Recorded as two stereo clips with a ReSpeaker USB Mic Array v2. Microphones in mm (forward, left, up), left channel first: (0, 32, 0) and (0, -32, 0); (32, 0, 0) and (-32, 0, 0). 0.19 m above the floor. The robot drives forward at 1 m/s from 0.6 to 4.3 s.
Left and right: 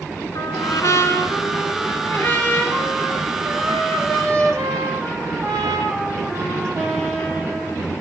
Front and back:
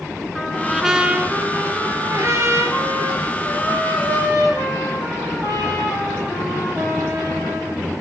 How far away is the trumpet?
About 1.3 m.